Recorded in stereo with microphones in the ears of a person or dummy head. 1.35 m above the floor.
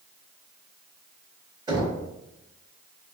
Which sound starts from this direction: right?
Knocking, at 1.7 s.